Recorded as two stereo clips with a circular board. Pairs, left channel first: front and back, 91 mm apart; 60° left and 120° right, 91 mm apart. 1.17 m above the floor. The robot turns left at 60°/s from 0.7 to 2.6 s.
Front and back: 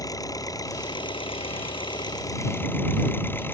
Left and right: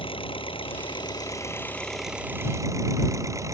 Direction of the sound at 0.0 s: 50° left.